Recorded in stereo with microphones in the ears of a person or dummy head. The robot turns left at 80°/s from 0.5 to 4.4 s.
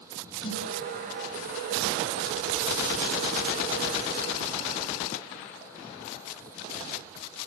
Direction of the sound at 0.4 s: 40° left (ahead or behind).